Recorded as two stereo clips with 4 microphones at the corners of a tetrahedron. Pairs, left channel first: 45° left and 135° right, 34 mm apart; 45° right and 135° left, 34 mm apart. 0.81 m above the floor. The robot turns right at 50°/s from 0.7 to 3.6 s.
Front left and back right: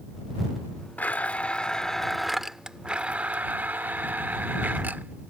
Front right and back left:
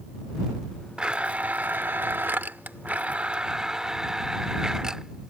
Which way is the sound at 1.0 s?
75° left.